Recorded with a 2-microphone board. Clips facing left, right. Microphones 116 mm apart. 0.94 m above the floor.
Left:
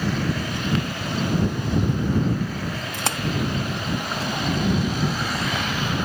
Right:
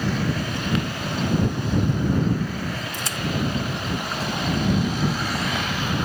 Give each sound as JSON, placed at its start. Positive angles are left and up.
{"t": 2.9, "sound": "a splash", "side_deg": 65}